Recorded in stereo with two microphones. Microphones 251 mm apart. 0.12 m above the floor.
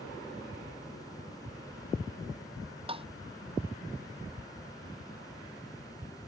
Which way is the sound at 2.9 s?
20° right (ahead or behind).